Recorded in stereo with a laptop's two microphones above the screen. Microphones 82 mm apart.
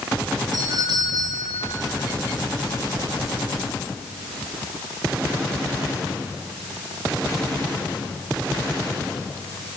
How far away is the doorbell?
About 3 m.